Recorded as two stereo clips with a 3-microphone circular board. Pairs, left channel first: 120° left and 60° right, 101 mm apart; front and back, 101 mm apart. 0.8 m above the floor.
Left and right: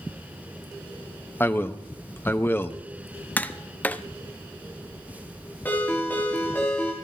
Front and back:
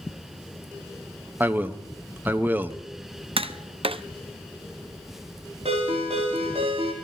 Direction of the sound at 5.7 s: 170° right.